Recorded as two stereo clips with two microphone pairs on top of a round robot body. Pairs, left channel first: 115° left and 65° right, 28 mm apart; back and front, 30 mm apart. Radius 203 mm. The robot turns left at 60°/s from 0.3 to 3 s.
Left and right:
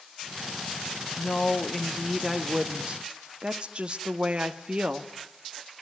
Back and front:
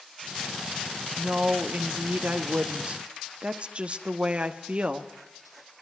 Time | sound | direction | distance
1.2 | a woman speaking | 75° left | 1.5 m